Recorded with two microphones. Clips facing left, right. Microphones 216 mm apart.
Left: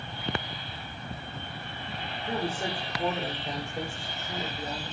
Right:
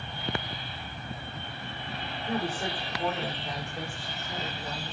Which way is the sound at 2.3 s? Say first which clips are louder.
Even; 15° left (ahead or behind).